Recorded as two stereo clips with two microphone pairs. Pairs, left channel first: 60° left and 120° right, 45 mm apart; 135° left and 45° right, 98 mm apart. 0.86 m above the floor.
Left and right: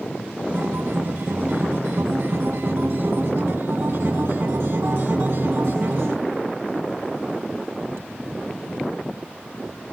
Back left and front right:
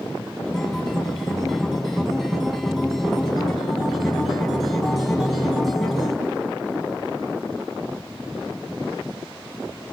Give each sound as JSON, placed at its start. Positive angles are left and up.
{"t": 0.5, "sound": "a guitar", "azimuth_deg": -140, "distance_m": 2.0}